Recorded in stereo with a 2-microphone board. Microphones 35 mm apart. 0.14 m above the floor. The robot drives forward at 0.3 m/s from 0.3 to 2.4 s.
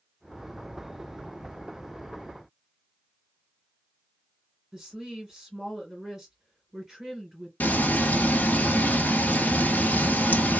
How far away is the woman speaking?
About 1.7 m.